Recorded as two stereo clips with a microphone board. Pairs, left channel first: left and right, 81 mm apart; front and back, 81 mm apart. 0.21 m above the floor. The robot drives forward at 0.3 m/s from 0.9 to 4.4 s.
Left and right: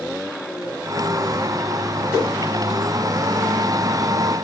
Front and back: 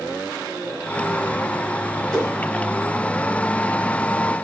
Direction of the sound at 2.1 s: 75° left.